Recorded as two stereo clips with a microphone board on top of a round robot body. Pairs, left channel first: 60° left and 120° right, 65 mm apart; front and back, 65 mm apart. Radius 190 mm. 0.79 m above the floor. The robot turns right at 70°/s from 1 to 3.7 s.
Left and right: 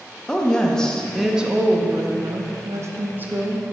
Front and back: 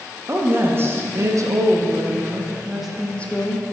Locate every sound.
0.3 s a woman speaking: 135° left, 1.0 m; by 3.7 s 35° right, 1.0 m